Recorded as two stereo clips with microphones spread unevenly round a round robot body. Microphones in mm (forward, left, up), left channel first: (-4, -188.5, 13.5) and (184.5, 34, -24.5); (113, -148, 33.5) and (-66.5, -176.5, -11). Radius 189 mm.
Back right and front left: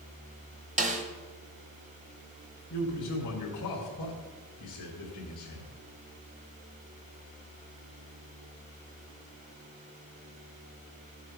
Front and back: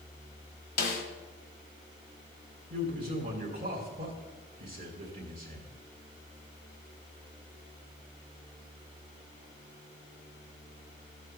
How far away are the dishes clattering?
I don't hear dishes clattering.